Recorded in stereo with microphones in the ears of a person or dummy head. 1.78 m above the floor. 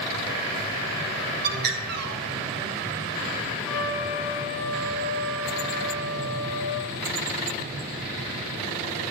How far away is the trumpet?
About 7.5 m.